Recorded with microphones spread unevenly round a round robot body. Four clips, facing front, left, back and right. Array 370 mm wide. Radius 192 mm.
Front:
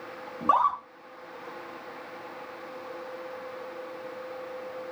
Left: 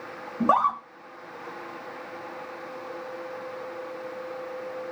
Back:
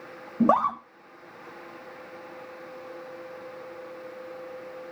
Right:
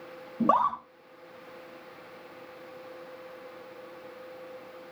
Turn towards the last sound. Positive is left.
turn(degrees=180)